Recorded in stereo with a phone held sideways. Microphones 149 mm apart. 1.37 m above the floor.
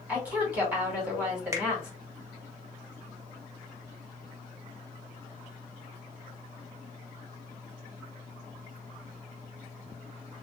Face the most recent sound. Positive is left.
turn(degrees=-20)  # may be behind; listen again after turning